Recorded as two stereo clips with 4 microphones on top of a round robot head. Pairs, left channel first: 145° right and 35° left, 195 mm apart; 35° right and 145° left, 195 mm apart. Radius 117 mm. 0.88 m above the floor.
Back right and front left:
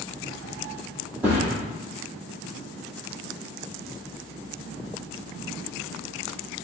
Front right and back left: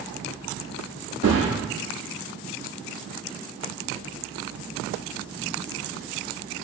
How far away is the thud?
About 1.5 m.